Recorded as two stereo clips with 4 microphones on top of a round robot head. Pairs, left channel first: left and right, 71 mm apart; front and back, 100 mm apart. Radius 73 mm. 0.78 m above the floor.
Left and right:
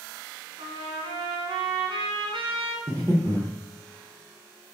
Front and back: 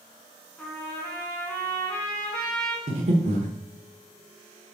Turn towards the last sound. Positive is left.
turn(degrees=-150)